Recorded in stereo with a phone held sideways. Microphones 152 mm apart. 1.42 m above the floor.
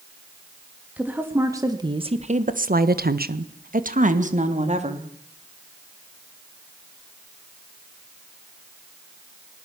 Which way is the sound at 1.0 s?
10° right (ahead or behind).